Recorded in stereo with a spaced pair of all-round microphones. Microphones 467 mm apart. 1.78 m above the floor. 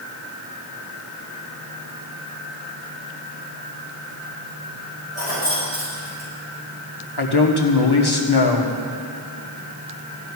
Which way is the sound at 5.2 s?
30° left (ahead or behind).